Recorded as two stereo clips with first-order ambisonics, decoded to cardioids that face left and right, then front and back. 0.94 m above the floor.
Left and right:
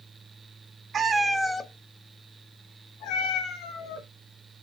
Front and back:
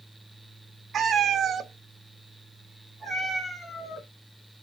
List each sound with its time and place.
0.9 s a cat meowing: 140° right, 0.6 m; by 4.1 s 95° left, 1.8 m